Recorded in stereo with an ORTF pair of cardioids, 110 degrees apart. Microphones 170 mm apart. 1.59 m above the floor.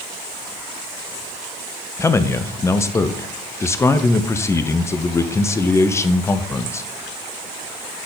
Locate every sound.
2.0 s a man speaking: 15° left, 0.6 m